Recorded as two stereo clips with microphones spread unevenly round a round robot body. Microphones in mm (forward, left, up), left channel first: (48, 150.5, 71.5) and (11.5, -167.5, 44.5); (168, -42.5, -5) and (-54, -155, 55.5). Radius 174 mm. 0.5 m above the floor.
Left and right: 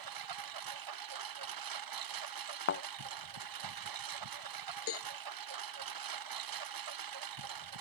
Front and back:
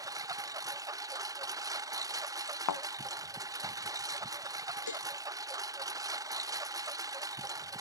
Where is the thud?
30° left.